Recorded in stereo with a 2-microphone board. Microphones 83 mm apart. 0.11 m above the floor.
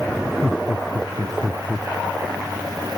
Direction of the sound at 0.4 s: 10° right (ahead or behind).